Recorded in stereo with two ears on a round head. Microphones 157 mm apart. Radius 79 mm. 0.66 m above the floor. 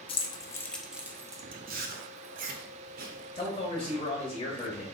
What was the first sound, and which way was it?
Keys jangling, 30° left (ahead or behind).